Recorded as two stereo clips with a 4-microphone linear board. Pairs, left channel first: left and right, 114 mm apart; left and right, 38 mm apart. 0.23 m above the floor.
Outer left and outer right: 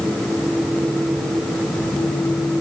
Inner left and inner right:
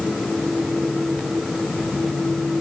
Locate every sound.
Only background noise.